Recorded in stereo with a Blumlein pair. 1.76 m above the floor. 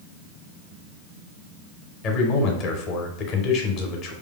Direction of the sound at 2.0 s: 35° left.